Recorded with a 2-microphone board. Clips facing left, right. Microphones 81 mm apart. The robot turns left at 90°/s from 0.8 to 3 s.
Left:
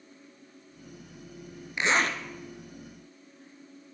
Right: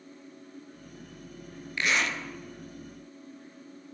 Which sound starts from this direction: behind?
A zipper, at 1.8 s.